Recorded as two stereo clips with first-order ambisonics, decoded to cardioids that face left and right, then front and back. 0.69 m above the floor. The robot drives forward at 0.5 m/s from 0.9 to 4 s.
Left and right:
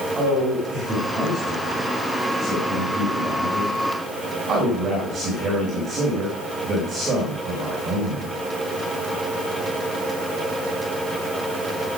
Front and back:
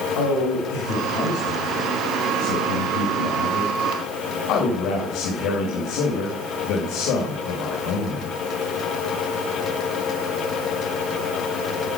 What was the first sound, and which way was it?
A man speaking, 20° right.